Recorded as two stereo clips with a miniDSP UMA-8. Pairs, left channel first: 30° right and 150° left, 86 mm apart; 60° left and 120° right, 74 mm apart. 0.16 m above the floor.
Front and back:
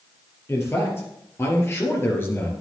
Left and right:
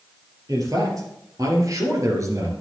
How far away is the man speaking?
About 3.5 m.